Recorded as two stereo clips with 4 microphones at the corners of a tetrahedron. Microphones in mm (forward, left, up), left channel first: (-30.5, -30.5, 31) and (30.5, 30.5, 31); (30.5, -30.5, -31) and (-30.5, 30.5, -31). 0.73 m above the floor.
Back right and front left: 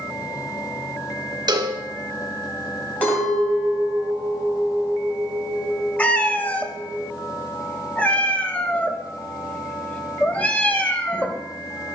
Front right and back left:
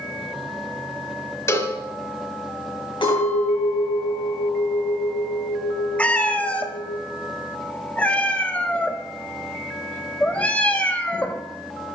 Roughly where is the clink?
Ahead right.